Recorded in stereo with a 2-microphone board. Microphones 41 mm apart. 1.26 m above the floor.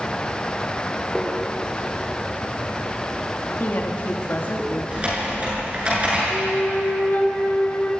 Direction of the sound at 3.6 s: 50° left (ahead or behind).